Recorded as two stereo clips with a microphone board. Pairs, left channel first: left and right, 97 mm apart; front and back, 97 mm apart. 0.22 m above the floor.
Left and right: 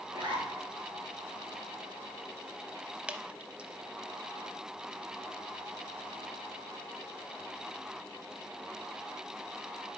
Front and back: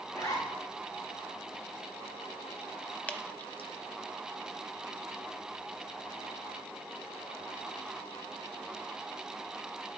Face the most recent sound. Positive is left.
turn(degrees=-40)